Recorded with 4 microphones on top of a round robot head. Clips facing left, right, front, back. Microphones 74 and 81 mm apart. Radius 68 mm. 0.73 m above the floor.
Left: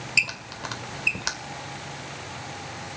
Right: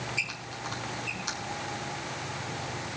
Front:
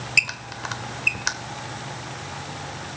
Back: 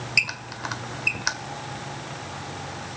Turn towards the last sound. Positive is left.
turn(degrees=95)